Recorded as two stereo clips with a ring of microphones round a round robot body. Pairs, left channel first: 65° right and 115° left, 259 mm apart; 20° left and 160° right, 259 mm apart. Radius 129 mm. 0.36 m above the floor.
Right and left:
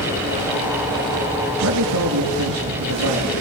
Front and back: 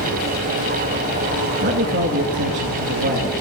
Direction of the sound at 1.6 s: 150° left.